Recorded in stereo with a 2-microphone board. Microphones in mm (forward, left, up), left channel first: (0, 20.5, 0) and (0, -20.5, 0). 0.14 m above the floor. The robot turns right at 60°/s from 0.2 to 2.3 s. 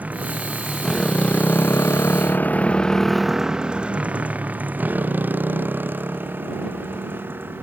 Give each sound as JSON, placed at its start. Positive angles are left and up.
{"t": 0.0, "sound": "a motorcycle", "side_deg": -40}